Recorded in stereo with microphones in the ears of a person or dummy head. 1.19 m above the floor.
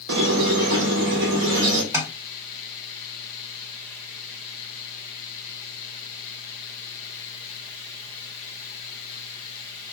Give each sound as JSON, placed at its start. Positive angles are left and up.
{"t": 0.1, "sound": "a squeak", "side_deg": -65, "distance_m": 0.8}
{"t": 1.9, "sound": "tapping", "side_deg": -10, "distance_m": 0.7}